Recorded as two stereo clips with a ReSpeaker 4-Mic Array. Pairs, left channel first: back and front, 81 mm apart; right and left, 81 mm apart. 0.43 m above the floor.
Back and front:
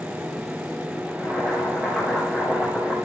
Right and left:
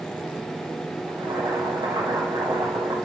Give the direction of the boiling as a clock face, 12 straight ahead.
9 o'clock.